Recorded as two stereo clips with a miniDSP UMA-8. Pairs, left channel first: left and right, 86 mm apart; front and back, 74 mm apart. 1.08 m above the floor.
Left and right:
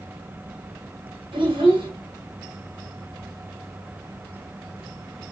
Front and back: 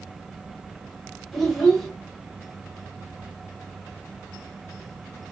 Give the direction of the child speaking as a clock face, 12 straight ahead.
3 o'clock.